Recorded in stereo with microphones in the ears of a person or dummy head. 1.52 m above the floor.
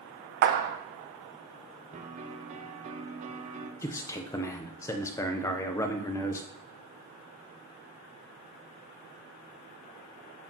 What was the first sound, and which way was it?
A clap, 50° right (ahead or behind).